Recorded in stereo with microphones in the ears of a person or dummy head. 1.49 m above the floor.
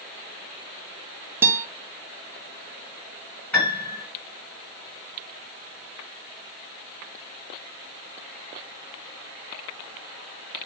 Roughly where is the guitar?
Centre.